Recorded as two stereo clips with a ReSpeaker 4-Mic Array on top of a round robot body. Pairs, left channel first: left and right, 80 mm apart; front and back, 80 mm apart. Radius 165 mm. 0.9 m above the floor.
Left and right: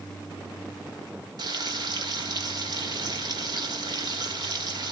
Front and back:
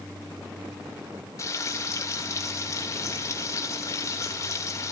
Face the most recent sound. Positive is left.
turn(degrees=-55)